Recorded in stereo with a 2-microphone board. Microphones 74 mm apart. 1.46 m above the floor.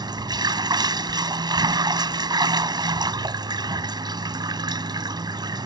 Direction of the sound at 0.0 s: 70° right (ahead or behind).